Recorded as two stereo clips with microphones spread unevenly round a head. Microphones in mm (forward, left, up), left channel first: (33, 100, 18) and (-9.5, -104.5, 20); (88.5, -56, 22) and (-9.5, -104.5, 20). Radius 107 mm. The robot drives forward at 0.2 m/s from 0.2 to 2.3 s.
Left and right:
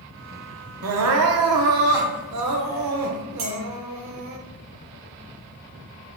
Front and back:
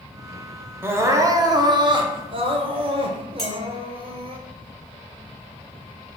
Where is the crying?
80° right, 0.6 m; by 4.4 s 110° right, 0.6 m.